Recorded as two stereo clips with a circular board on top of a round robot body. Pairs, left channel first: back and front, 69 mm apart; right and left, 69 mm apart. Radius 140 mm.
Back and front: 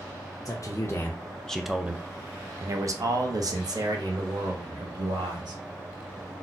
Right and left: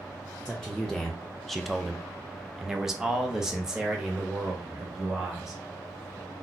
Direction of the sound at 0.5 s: 170° right.